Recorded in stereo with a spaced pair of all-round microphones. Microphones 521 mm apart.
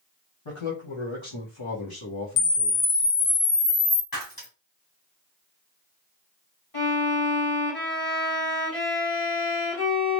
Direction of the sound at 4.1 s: 40° left (ahead or behind).